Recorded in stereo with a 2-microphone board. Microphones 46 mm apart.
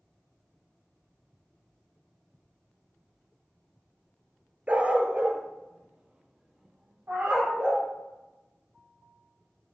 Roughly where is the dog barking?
Right.